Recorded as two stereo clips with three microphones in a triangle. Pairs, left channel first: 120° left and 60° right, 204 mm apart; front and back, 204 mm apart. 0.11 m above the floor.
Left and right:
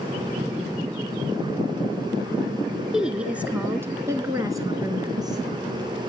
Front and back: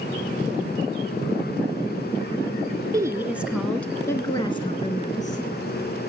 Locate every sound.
2.9 s a woman speaking: 140° right, 1.8 m; by 5.5 s straight ahead, 2 m